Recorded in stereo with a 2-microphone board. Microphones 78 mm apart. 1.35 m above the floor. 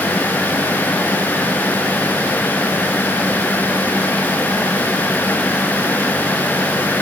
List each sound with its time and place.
Only background noise.